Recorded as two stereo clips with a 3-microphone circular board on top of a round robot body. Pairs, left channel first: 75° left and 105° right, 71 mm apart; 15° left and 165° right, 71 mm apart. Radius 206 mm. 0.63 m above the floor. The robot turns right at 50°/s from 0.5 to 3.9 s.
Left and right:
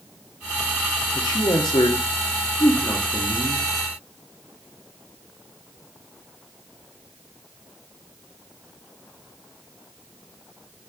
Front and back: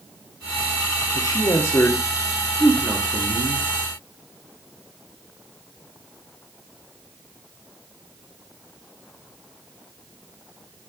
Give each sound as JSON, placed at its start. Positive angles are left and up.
{"t": 1.1, "sound": "a man speaking", "azimuth_deg": 45, "distance_m": 1.5}